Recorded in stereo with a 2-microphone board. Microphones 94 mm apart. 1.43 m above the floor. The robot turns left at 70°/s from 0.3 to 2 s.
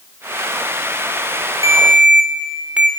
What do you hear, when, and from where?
1.6 s a ringtone: 40° right (ahead or behind), 2 m; by 2.9 s 15° right (ahead or behind), 2 m